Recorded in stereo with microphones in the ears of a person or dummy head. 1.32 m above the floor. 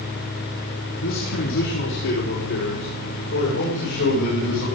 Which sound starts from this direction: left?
A man speaking, at 1.0 s.